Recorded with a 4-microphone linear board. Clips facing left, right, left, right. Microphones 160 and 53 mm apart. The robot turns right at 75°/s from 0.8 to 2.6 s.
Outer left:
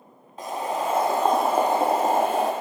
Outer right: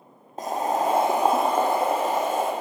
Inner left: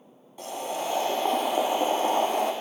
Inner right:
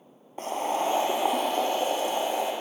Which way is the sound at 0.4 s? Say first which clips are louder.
Outer right 3 dB, inner right 4 dB; 45° right.